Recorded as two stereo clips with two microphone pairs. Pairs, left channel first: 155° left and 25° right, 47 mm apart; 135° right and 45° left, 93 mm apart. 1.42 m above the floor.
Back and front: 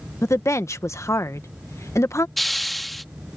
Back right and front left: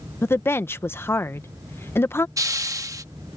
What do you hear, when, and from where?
0.2 s a woman speaking: 160° left
2.4 s a hiss: 65° left